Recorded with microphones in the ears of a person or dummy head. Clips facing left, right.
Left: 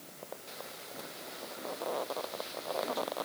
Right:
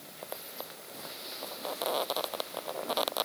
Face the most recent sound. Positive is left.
No sound to turn to.